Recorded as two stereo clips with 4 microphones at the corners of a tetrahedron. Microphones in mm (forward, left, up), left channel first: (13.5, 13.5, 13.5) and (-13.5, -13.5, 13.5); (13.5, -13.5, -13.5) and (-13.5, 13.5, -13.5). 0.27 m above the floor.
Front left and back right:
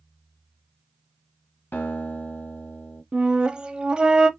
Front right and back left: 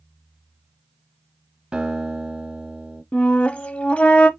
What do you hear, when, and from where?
1.7 s a guitar: 70° left, 2 m
3.1 s a flute: 80° right, 0.6 m